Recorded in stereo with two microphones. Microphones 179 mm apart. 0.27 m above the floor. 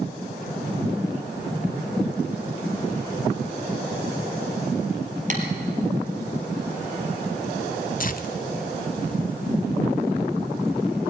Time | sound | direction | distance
5.3 | tapping | 45° right (ahead or behind) | 3.5 m
8.0 | tearing paper | 50° left (ahead or behind) | 0.9 m